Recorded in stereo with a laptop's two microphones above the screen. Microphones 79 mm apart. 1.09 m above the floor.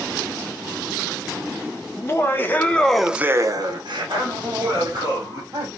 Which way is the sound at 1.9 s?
35° left (ahead or behind).